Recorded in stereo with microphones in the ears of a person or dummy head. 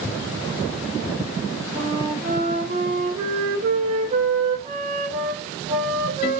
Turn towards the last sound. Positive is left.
turn(degrees=-45)  # may be behind; listen again after turning